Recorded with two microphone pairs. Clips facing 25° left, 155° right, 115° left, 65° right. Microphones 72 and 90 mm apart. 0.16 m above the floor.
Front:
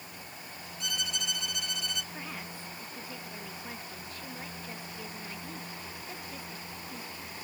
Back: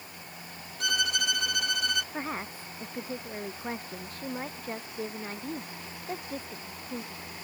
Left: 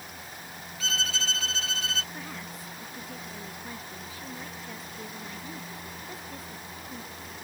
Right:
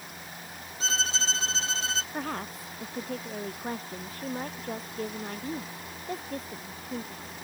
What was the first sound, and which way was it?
A violin, 125° right.